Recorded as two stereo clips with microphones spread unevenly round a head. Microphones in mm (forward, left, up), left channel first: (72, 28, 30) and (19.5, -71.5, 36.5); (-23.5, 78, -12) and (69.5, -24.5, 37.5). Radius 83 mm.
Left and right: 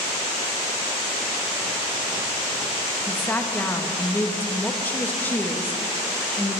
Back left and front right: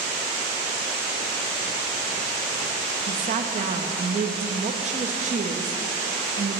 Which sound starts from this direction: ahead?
A woman speaking, at 3.1 s.